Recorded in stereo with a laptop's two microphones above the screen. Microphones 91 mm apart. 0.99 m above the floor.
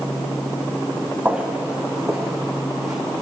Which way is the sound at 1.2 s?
20° right (ahead or behind).